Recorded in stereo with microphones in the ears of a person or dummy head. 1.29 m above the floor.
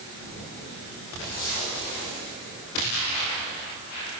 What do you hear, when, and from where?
Only background noise.